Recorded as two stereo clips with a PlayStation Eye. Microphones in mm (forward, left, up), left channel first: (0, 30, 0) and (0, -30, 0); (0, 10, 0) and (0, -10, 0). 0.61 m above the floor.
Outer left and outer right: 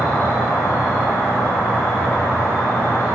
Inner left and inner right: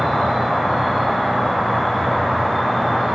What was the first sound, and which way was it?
An insect, 55° left (ahead or behind).